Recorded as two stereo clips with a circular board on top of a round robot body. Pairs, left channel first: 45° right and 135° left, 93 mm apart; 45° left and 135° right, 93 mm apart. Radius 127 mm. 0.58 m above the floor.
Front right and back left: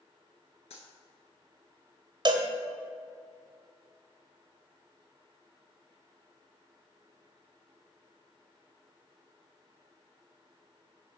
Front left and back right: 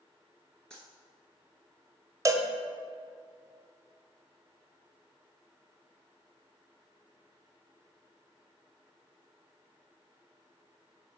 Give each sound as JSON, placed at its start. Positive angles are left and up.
{"t": 0.7, "sound": "a dropped coin", "azimuth_deg": -35, "distance_m": 0.9}
{"t": 2.2, "sound": "a cowbell", "azimuth_deg": 170, "distance_m": 0.9}